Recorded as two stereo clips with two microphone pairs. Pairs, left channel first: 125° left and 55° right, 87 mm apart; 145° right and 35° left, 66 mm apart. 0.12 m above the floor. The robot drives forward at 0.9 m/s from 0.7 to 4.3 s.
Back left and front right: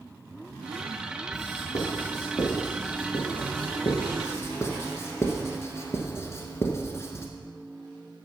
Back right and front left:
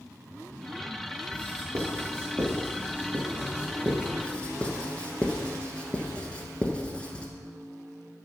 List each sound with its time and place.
1.3 s writing: 70° left, 4.5 m; by 4.1 s 105° left, 4 m
4.2 s writing: 150° left, 1.2 m; by 7.3 s 155° left, 1.2 m